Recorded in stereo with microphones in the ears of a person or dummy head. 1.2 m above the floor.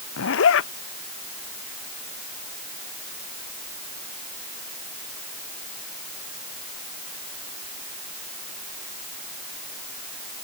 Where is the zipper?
80° left.